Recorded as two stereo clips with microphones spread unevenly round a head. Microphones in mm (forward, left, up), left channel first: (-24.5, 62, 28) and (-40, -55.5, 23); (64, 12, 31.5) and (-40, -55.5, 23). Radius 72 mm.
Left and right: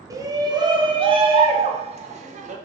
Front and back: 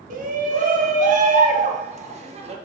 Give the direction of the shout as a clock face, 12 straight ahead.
5 o'clock.